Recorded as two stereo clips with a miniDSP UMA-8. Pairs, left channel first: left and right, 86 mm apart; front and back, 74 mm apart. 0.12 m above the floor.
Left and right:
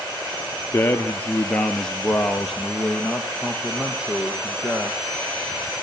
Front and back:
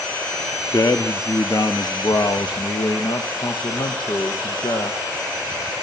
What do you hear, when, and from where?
0.7 s a man speaking: 30° left, 1.9 m; by 5.0 s 15° right, 4.5 m